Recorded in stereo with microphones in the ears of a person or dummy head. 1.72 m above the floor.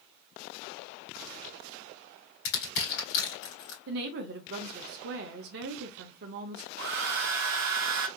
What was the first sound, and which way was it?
Crushing, 55° left (ahead or behind).